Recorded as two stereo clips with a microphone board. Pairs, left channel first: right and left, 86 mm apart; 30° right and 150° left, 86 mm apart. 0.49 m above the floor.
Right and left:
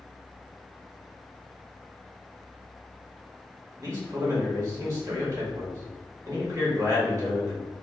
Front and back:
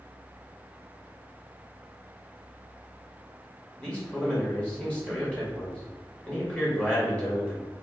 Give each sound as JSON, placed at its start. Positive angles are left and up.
{"t": 3.8, "sound": "a man speaking", "azimuth_deg": 45, "distance_m": 1.7}